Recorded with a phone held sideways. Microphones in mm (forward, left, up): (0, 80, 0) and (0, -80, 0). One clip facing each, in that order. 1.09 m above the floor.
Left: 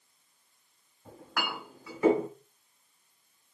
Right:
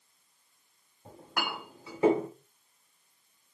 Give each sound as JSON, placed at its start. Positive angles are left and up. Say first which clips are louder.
{"t": 1.1, "sound": "a clink", "louder": "even", "side_deg": -25, "distance_m": 1.9}